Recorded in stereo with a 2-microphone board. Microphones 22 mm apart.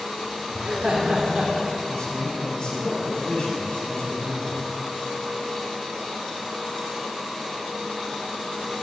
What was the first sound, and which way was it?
Laughter, 70° right (ahead or behind).